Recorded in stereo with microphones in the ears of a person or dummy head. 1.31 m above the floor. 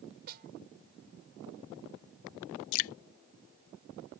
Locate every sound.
0.3 s a snare drum: 45° right (ahead or behind)
2.7 s dripping: 75° left (ahead or behind)